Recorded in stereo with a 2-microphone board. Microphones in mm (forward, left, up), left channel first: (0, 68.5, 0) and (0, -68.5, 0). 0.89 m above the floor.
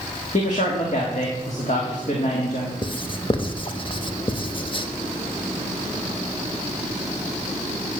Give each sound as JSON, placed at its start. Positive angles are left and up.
{"t": 0.3, "sound": "a man speaking", "side_deg": 55, "distance_m": 1.7}
{"t": 2.8, "sound": "writing", "side_deg": 35, "distance_m": 0.7}